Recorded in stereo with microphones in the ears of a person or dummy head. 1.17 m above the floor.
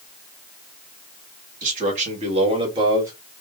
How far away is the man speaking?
About 1.9 m.